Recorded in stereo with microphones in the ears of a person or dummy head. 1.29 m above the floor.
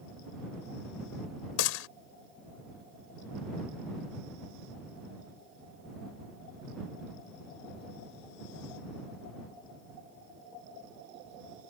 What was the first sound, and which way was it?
A gunshot, 80° left.